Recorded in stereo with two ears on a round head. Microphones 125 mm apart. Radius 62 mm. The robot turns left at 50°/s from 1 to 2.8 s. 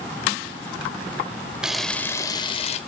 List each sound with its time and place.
1.6 s a camera shutter: 175° right, 0.6 m; by 2.8 s 130° left, 0.6 m